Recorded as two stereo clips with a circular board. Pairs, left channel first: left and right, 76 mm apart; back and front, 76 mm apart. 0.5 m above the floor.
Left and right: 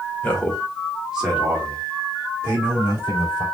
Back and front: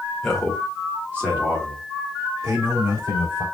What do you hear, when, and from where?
0.2 s a man speaking: 100° left, 1.3 m; by 3.5 s 40° right, 3 m